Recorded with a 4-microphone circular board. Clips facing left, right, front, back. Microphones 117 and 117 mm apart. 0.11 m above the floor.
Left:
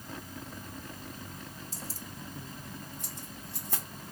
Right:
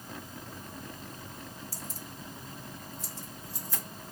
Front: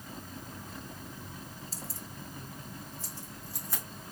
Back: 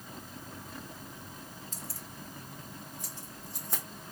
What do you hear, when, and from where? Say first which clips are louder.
1.7 s keys jangling: even, front 1 dB; 35° left, 1.0 m; by 3.8 s 115° left, 3.5 m